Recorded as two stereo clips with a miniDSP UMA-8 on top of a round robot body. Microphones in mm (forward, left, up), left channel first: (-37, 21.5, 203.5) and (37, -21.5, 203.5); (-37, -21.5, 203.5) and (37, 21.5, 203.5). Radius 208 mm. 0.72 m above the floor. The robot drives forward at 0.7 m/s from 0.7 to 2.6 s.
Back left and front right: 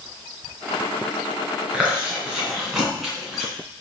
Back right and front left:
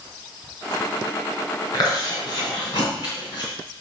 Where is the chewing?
105° right, 3.5 m; by 3.5 s 115° right, 3.5 m.